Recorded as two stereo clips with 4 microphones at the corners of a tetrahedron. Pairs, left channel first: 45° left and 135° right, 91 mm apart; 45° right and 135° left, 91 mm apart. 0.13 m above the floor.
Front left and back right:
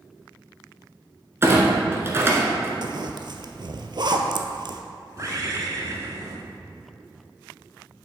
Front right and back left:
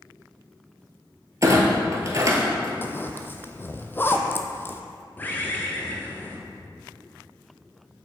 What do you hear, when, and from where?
1.4 s a clunk: 175° left, 1.3 m
2.8 s a zipper: 110° right, 0.6 m
5.2 s a bird: 105° right, 1.2 m